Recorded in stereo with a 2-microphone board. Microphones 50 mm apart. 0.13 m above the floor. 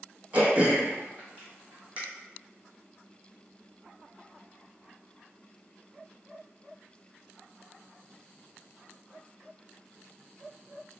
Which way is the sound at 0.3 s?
30° right (ahead or behind).